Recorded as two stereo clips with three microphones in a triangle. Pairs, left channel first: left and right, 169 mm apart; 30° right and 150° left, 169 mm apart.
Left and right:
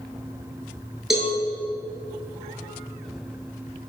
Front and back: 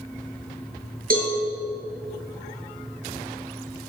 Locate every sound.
1.1 s a cowbell: straight behind, 6 m